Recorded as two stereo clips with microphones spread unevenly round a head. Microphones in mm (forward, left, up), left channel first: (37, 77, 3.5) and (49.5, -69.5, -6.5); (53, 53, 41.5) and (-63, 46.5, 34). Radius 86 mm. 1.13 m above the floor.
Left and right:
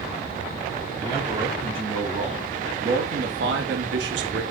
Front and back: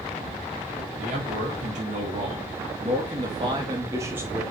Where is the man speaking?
155° right, 2.5 m; by 4.4 s 95° right, 1.2 m.